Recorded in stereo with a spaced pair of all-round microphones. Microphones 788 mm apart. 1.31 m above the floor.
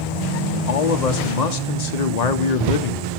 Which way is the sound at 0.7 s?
55° left (ahead or behind).